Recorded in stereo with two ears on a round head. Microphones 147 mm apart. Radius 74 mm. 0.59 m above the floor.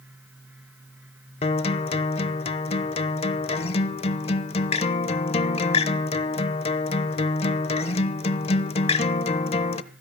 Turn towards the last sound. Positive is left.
turn(degrees=35)  # may be behind; listen again after turning